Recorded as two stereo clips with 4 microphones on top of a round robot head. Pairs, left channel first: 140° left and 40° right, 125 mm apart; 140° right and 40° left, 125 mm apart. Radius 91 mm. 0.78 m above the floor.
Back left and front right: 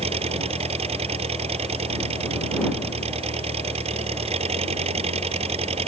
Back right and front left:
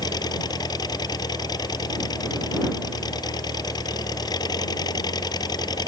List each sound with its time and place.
0.0 s an engine running: 80° right